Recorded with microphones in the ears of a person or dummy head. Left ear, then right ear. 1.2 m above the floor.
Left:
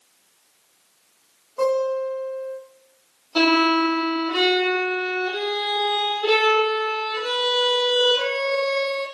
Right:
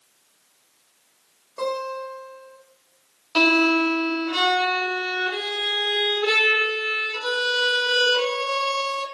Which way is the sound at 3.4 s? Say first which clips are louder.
Even; 55° right (ahead or behind).